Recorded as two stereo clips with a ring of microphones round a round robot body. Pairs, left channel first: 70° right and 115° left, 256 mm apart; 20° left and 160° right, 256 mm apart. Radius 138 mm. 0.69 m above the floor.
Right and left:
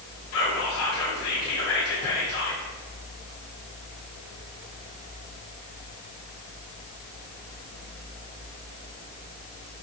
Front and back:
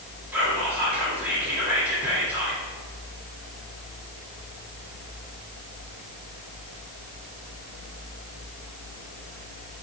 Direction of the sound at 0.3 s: 75° right.